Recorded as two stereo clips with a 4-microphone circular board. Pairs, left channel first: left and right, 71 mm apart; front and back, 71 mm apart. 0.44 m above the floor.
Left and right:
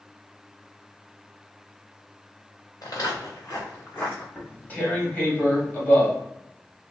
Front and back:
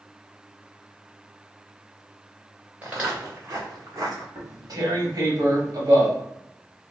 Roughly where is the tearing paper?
Behind left.